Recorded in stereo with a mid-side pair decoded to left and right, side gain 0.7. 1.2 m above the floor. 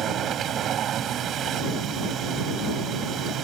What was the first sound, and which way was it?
A machine running, 40° right.